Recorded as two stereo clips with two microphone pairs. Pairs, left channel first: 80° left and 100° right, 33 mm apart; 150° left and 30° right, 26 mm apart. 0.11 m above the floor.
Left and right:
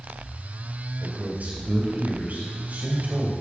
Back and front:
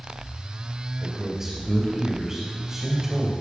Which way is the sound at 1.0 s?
95° right.